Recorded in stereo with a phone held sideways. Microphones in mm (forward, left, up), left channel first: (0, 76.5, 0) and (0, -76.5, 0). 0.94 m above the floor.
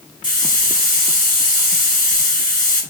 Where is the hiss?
65° left (ahead or behind), 5.5 m.